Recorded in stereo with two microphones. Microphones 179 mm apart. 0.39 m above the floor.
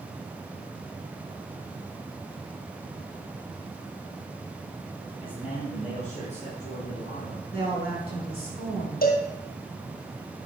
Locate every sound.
5.2 s a man speaking: 30° left (ahead or behind), 4.5 m; by 7.4 s 50° left (ahead or behind), 4.5 m
7.5 s a woman speaking: 60° left (ahead or behind), 5 m
9.0 s a cowbell: 60° left (ahead or behind), 1.9 m